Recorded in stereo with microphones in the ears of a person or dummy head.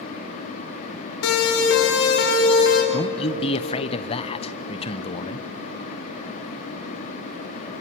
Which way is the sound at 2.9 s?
25° left (ahead or behind).